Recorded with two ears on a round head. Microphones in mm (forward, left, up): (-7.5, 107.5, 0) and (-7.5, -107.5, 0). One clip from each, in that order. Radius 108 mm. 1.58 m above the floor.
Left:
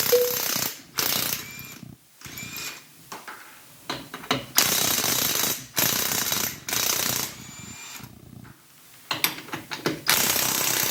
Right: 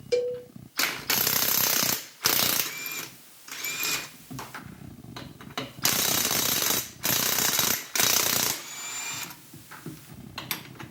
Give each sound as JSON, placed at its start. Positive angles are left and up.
{"t": 0.1, "sound": "a cowbell", "side_deg": 15, "distance_m": 0.5}